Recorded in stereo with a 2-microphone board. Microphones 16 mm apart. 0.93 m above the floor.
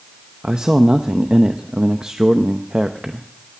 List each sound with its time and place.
0.4 s a man speaking: 55° right (ahead or behind), 0.7 m